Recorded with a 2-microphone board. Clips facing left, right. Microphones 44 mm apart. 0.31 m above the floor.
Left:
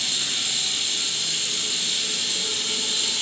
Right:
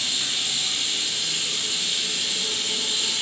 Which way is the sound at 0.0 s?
20° right (ahead or behind).